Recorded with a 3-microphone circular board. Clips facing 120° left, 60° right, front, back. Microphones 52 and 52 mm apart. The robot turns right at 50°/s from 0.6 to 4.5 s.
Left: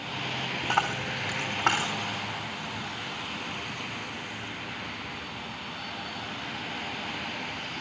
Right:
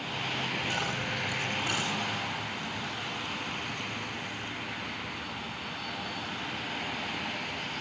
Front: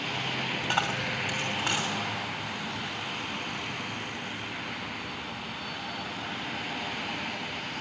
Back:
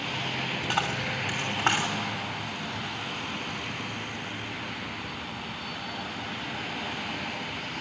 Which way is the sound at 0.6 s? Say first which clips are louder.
Left 4 dB, even; 95° left.